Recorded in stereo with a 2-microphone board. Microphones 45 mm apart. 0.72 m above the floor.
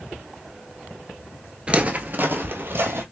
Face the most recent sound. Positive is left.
turn(degrees=-60)  # may be behind; listen again after turning